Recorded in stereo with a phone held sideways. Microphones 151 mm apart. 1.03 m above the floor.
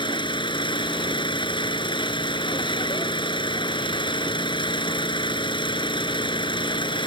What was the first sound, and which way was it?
An engine running, 35° left (ahead or behind).